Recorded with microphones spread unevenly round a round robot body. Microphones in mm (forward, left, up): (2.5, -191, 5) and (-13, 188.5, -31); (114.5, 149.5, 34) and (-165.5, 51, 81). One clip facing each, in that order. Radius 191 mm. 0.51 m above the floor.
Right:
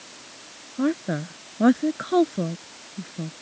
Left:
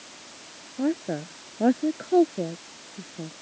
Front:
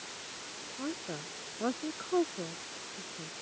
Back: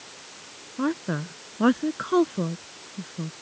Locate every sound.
0.8 s a woman speaking: 145° right